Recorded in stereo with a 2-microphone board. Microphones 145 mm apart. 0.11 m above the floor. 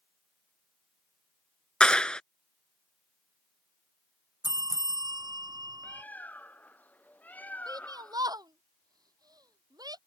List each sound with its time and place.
1.8 s a clap: 5° left (ahead or behind)
4.4 s a bell: 30° right (ahead or behind)
5.8 s a bird: 10° left (ahead or behind)
7.7 s a shout: 25° right (ahead or behind)